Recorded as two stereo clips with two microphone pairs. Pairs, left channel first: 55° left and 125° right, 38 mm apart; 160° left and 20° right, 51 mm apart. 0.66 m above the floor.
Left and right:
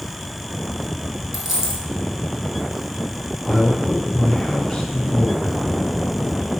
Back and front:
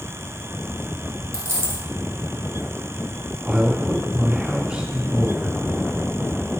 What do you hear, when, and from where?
1.3 s a dropped coin: 40° right, 1.7 m
3.4 s a man speaking: straight ahead, 0.6 m